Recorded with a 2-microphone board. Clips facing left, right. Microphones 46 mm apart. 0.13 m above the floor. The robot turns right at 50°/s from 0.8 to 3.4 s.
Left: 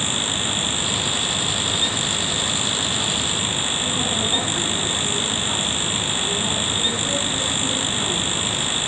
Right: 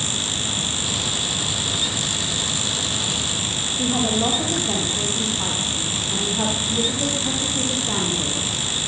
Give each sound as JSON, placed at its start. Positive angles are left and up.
{"t": 3.8, "sound": "a woman speaking", "side_deg": -75, "distance_m": 9.0}